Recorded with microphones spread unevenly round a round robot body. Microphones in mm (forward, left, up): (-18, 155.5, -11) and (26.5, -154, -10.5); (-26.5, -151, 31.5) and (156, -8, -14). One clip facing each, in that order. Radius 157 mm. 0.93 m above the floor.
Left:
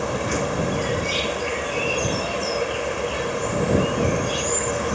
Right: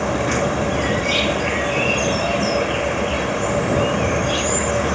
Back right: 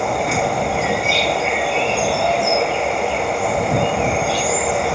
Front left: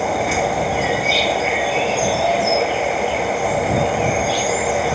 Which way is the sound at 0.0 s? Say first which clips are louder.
Right 4 dB, even; 50° right.